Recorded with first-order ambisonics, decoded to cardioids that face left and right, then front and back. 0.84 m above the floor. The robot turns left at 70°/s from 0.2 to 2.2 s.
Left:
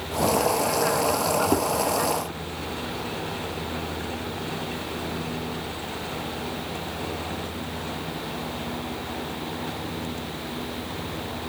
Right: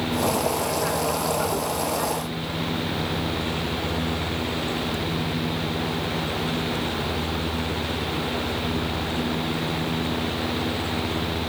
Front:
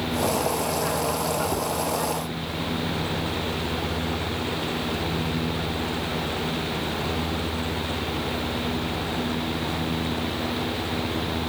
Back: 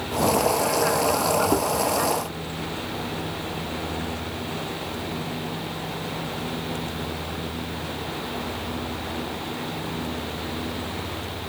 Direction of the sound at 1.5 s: 115° left.